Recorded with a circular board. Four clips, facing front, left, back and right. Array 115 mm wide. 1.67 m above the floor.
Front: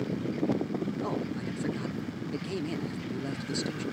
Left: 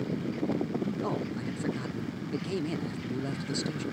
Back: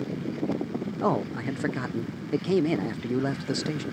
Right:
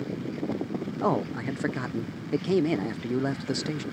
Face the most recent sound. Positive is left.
turn(degrees=-140)